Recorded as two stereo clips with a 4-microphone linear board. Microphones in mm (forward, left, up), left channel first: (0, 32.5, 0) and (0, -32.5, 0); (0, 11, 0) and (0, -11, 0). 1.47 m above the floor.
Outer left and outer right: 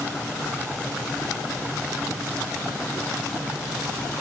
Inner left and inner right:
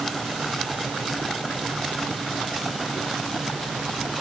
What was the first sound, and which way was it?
Only background noise.